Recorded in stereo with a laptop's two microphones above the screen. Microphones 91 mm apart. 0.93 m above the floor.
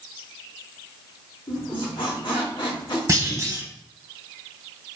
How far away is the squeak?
About 1.9 m.